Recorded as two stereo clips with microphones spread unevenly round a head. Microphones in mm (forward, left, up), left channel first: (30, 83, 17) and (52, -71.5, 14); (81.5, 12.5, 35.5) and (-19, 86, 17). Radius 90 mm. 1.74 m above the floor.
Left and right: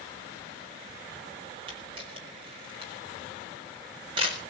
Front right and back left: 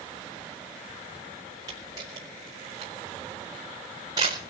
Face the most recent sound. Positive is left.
turn(degrees=-145)